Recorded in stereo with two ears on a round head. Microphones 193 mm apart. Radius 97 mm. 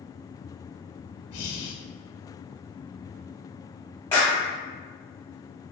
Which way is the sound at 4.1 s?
10° left (ahead or behind).